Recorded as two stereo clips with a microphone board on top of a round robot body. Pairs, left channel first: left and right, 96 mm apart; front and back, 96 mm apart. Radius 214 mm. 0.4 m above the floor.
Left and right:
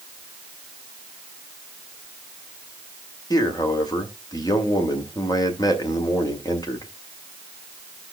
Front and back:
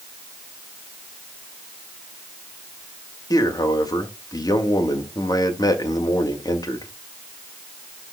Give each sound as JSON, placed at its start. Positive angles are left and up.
{"t": 3.3, "sound": "a man speaking", "azimuth_deg": 45, "distance_m": 2.5}